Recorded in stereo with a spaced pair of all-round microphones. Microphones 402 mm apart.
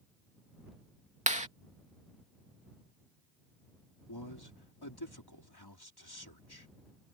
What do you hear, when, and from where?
1.3 s a clap: 15° right (ahead or behind)
4.1 s a man speaking: 65° left (ahead or behind)